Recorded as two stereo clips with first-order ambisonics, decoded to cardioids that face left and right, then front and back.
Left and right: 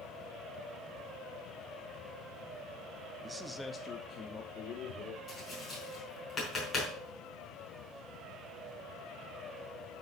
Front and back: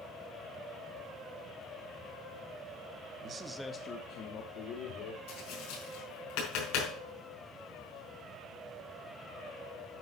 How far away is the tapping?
About 4.5 m.